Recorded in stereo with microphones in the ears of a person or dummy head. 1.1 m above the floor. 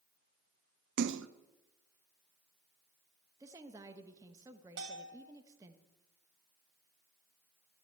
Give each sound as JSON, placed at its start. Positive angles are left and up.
{"t": 1.0, "sound": "a splash", "side_deg": -65, "distance_m": 0.5}
{"t": 3.4, "sound": "a woman speaking", "side_deg": -15, "distance_m": 1.0}
{"t": 4.8, "sound": "a bell", "side_deg": -60, "distance_m": 2.0}